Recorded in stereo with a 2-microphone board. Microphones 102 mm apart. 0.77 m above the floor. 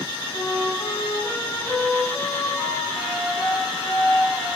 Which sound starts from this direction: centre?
A flute, at 0.3 s.